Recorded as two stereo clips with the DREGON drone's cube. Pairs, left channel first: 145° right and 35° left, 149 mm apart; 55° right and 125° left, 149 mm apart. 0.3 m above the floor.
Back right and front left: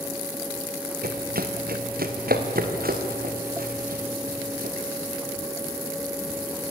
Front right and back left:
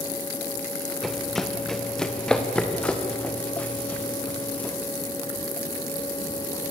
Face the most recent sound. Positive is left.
turn(degrees=25)